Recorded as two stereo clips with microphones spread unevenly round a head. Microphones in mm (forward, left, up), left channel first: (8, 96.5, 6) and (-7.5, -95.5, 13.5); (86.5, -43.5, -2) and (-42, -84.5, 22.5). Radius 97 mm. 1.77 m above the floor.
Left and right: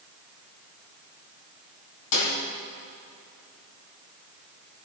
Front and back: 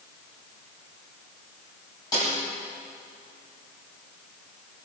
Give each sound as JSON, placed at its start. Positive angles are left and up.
{"t": 2.1, "sound": "a snare drum", "azimuth_deg": 95, "distance_m": 4.5}